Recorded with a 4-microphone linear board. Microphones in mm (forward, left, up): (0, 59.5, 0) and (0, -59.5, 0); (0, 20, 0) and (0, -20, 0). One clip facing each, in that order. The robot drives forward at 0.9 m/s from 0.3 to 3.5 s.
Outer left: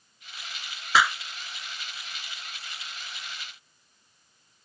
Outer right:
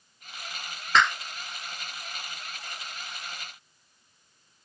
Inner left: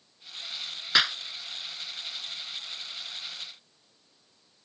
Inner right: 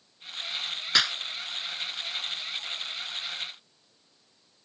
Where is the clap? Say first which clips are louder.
Even, inner left 1 dB; 10° left (ahead or behind).